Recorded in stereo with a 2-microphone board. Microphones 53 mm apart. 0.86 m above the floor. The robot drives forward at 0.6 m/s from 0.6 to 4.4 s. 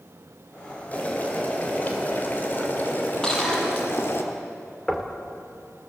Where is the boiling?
30° left (ahead or behind), 4 m; by 4.2 s 55° left (ahead or behind), 2.5 m.